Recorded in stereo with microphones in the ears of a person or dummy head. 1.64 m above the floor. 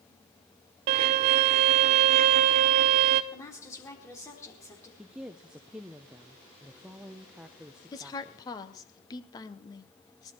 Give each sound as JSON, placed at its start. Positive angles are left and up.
{"t": 0.9, "sound": "a violin", "side_deg": -30, "distance_m": 0.6}
{"t": 3.3, "sound": "a woman speaking", "side_deg": 15, "distance_m": 4.0}
{"t": 5.0, "sound": "a woman speaking", "side_deg": -5, "distance_m": 0.7}
{"t": 7.9, "sound": "a woman speaking", "side_deg": 20, "distance_m": 1.3}